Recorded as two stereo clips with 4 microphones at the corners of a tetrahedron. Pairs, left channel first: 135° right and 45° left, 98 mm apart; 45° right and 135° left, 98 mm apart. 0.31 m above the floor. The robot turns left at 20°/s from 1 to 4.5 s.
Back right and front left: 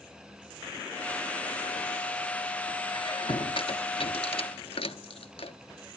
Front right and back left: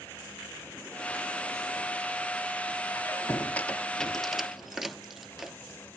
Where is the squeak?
105° right, 1.0 m; by 5.6 s 140° right, 1.0 m.